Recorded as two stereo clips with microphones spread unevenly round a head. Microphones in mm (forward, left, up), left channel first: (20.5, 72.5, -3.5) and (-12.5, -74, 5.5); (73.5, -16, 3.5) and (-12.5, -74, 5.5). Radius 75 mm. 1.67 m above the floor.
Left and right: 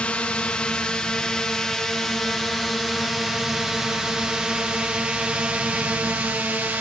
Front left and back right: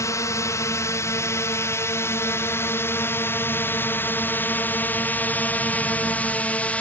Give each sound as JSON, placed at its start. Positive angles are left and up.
{"t": 0.0, "sound": "a drone", "azimuth_deg": 0}